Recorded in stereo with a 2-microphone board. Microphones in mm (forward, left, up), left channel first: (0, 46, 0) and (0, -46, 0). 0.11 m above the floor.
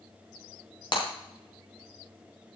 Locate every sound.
0.9 s breaking glass: 55° left (ahead or behind), 6 m